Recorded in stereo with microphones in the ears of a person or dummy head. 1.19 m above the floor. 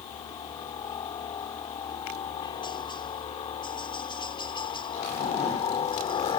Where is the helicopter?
20° left (ahead or behind); by 6.4 s 25° left (ahead or behind).